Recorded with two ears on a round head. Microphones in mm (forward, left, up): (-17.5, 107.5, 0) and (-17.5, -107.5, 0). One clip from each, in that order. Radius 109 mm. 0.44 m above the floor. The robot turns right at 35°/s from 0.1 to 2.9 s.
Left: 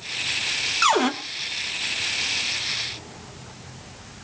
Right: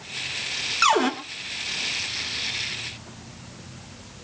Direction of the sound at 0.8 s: Centre (ahead or behind).